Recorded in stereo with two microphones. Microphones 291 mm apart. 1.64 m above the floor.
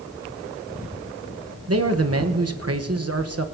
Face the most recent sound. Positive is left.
turn(degrees=-55)  # may be behind; listen again after turning